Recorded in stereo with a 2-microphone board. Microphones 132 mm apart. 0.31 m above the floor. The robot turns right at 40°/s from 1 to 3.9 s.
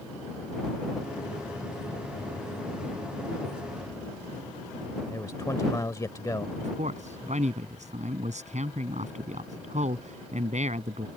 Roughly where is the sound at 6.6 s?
Right.